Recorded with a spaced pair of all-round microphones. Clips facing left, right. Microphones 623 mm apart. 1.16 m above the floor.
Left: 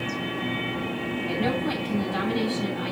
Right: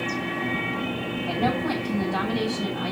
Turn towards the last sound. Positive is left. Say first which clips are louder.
# right 1 dB
turn(degrees=-65)  # may be behind; listen again after turning